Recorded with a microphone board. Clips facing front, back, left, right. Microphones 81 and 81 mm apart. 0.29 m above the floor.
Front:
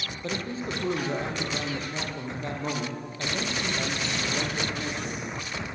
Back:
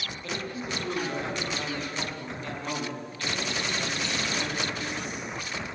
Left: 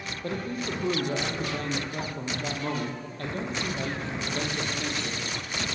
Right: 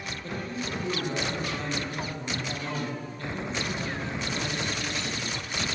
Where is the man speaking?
55° left, 7.5 m.